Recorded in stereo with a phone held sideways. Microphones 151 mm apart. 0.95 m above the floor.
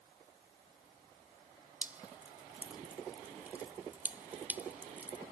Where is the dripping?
10° right (ahead or behind).